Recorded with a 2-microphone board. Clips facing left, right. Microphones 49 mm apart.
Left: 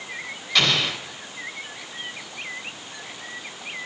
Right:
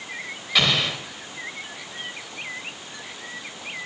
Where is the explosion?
10° right (ahead or behind), 1.8 m.